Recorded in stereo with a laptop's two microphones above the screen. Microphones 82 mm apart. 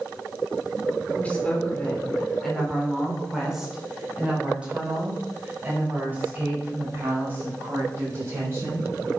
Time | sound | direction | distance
1.1 | a woman speaking | 20° left (ahead or behind) | 3.5 m